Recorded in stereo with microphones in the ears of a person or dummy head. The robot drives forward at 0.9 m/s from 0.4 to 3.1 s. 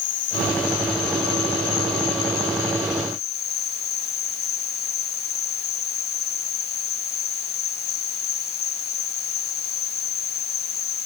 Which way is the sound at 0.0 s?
55° left (ahead or behind).